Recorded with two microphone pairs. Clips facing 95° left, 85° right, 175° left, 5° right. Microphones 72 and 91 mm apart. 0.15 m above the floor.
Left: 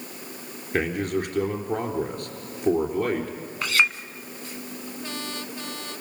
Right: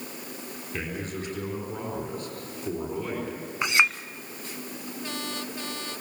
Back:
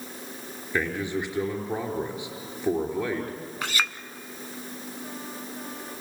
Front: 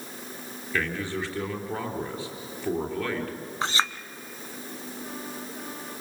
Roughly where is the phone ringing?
No phone ringing in this recording.